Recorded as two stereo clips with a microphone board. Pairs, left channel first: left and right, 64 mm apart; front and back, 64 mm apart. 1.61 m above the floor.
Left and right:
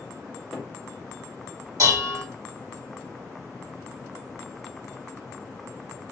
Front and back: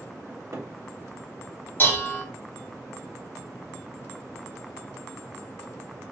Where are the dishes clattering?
55° right, 2 m.